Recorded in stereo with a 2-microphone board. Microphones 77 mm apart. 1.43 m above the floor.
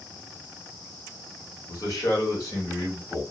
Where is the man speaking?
50° left (ahead or behind), 1.1 m; by 3.2 s 45° left (ahead or behind), 1.9 m.